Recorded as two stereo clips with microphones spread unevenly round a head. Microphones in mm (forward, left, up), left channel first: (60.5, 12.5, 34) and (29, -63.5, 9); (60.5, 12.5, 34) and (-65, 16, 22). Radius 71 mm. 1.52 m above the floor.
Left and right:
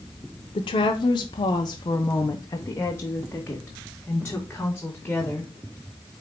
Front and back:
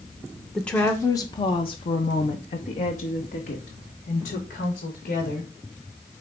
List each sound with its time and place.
0.6 s a woman speaking: 85° left, 0.8 m; by 5.5 s 5° right, 2.5 m